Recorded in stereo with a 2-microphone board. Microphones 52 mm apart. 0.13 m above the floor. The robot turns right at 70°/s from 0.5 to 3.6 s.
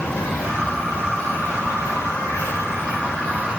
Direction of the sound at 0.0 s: 20° right.